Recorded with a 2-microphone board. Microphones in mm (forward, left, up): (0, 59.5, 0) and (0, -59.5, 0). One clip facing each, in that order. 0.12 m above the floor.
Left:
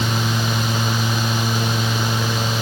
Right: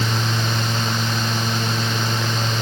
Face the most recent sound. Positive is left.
No sound to turn to.